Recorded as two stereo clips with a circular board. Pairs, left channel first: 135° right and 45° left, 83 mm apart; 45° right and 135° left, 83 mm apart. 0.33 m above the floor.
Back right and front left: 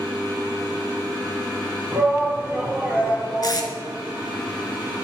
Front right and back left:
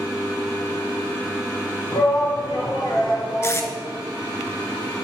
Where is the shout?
15° right, 2.0 m.